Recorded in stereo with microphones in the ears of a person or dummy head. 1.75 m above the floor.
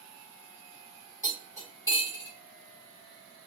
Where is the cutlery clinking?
20° left (ahead or behind), 1.9 m.